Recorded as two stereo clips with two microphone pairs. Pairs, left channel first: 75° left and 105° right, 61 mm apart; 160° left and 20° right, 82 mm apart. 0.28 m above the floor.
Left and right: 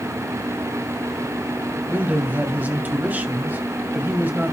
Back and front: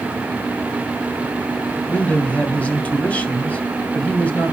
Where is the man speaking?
140° right, 2.0 m.